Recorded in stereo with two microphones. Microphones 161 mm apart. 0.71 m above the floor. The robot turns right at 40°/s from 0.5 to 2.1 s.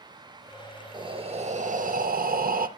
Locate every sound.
0.9 s breathing: 150° right, 0.6 m; by 2.7 s 105° right, 0.6 m